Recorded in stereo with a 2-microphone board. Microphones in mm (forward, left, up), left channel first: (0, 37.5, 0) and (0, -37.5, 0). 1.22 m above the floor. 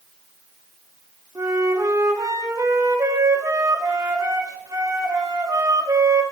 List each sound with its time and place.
1.4 s a flute: 50° right (ahead or behind), 3 m